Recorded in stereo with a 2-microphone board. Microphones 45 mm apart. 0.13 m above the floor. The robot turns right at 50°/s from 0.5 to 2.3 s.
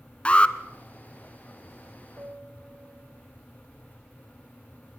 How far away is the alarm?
About 1.4 m.